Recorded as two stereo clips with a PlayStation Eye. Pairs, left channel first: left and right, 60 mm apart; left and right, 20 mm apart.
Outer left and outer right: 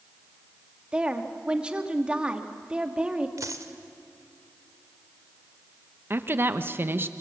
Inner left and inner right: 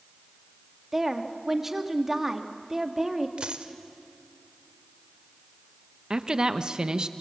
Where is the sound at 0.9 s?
15° right (ahead or behind), 1.8 m.